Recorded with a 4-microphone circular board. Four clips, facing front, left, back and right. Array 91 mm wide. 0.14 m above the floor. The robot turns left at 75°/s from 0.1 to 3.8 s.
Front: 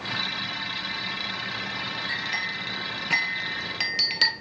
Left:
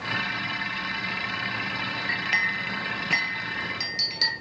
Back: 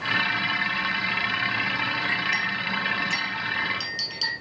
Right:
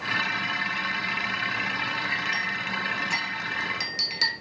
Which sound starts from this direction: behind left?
A clink, at 2.1 s.